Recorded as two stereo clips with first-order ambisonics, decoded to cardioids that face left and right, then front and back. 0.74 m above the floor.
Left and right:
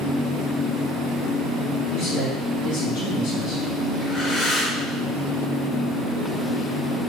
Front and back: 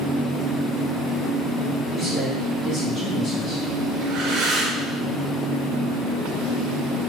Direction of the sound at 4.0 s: 145° left.